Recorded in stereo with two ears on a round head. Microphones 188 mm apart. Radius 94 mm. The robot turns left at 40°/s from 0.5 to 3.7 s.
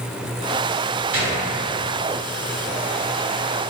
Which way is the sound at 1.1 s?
40° right (ahead or behind).